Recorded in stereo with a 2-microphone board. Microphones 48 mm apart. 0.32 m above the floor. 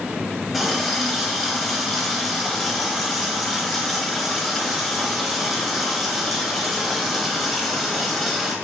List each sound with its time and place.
0.5 s a running tap: centre (ahead or behind), 0.9 m